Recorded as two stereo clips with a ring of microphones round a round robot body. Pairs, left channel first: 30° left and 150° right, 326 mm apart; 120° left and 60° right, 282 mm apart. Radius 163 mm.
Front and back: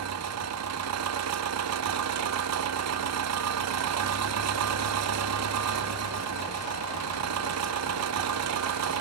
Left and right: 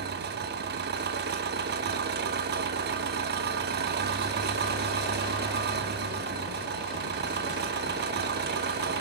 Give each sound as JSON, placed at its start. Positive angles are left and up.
{"t": 0.0, "sound": "an engine running", "azimuth_deg": -115, "distance_m": 1.0}